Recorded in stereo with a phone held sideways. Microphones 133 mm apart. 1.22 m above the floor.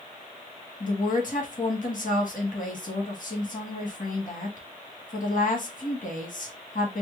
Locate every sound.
0.8 s a woman speaking: 70° left (ahead or behind), 1.5 m